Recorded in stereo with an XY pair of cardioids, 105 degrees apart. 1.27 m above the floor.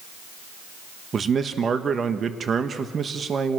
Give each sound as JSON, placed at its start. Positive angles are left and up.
{"t": 1.1, "sound": "a man speaking", "azimuth_deg": -40, "distance_m": 1.4}